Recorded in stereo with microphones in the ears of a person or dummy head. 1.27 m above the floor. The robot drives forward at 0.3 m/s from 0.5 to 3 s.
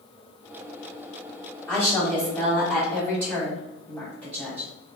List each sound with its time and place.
1.7 s a woman speaking: 15° left (ahead or behind), 1.1 m; by 4.7 s 10° left (ahead or behind), 1.5 m